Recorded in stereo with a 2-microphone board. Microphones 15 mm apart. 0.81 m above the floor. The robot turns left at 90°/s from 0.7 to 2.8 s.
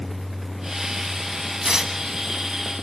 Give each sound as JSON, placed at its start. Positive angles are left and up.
{"t": 1.6, "sound": "tearing paper", "azimuth_deg": -70, "distance_m": 1.2}